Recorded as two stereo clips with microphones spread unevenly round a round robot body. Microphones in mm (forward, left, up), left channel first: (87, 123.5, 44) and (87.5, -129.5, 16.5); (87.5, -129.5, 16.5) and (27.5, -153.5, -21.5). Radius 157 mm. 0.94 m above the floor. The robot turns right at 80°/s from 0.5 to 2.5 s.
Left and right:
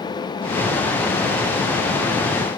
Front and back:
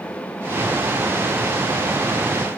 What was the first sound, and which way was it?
Only background noise.